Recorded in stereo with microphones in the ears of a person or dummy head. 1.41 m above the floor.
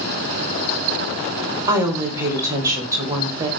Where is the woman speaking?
15° right (ahead or behind), 0.9 m.